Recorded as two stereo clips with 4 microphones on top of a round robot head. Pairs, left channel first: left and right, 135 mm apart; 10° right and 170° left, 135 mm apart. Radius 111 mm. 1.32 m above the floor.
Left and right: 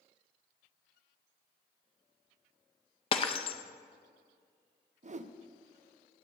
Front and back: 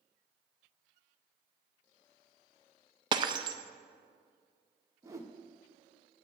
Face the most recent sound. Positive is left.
turn(degrees=-120)